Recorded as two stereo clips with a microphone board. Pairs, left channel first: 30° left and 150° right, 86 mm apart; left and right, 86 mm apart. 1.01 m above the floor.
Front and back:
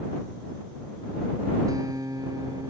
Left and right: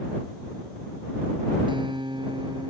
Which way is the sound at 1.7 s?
105° right.